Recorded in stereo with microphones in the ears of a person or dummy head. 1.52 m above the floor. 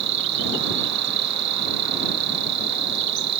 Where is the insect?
70° right (ahead or behind).